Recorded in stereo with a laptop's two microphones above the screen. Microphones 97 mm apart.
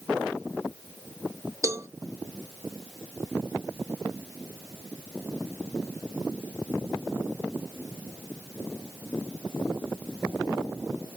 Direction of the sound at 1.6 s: 30° right (ahead or behind).